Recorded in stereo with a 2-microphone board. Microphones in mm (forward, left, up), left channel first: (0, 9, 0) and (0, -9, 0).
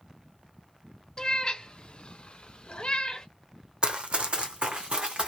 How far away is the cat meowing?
About 1.0 m.